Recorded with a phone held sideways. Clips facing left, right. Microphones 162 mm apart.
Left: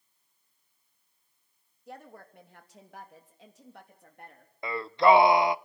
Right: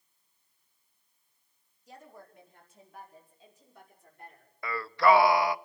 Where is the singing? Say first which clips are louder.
Left 2 dB; 20° left (ahead or behind), 0.5 m.